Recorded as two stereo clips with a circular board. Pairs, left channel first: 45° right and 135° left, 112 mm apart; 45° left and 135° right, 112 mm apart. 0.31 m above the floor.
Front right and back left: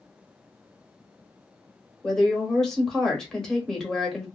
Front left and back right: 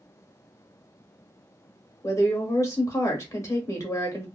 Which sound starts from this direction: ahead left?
A woman speaking, at 2.0 s.